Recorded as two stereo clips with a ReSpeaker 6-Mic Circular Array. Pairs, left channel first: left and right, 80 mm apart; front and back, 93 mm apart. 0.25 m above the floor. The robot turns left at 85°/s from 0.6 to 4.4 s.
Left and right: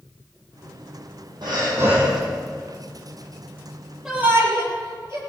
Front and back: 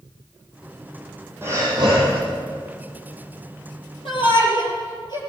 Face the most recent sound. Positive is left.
turn(degrees=-35)